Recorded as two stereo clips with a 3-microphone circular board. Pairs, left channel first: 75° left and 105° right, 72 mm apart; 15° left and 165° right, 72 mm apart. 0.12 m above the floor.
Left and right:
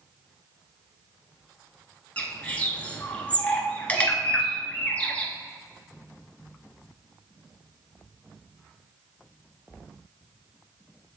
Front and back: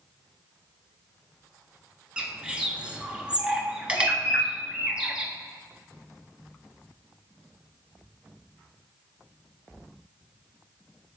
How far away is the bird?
About 0.8 m.